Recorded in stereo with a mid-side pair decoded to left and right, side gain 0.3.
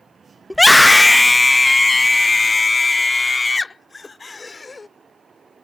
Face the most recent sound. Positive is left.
turn(degrees=45)